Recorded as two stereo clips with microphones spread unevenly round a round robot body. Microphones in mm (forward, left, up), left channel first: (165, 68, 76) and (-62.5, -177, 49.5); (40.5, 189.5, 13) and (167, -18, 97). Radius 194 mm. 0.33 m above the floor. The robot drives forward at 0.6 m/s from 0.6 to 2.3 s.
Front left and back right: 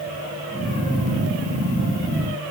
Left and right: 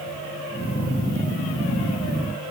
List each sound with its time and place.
Only background noise.